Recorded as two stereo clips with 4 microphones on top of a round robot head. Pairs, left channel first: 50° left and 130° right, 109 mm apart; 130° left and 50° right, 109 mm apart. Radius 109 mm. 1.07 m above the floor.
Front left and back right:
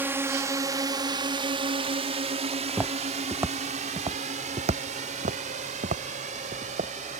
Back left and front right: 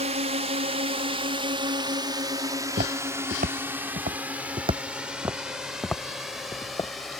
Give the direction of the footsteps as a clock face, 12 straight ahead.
2 o'clock.